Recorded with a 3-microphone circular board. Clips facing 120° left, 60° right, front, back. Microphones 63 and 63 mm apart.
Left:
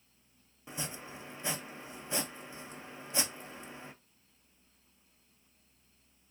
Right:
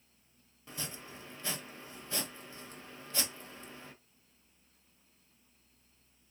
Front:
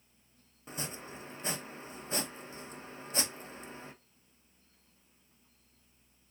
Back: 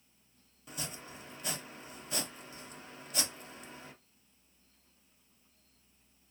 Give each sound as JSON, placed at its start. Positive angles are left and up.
{"t": 0.7, "sound": "chopping", "azimuth_deg": 55, "distance_m": 0.5}